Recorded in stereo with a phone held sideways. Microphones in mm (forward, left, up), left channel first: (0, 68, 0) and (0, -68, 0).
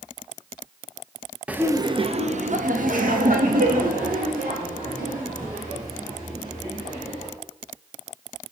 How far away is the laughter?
About 0.8 m.